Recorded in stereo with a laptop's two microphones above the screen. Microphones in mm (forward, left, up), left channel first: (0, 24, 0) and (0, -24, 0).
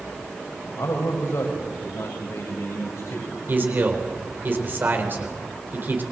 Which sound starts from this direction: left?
A man speaking, at 0.8 s.